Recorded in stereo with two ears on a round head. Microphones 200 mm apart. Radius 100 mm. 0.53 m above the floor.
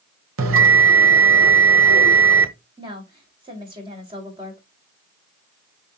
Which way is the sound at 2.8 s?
20° right (ahead or behind).